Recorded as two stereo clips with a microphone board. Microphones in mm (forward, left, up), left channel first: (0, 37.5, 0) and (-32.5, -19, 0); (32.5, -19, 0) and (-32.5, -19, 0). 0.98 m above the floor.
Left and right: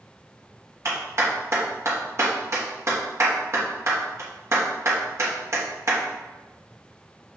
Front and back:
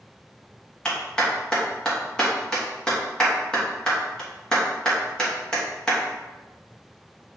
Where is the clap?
80° right, 1.3 m.